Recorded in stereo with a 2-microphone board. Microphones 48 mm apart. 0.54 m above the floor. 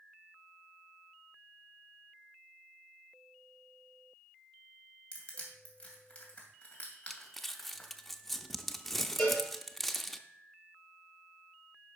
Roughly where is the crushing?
Left.